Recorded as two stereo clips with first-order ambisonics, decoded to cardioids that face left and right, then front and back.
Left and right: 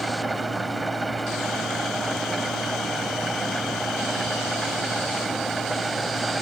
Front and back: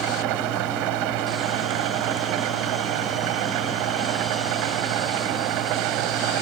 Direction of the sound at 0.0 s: 170° right.